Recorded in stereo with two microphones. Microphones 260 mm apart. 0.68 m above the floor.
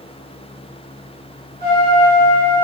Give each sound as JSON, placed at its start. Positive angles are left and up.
{"t": 1.6, "sound": "a trumpet", "side_deg": -40, "distance_m": 1.4}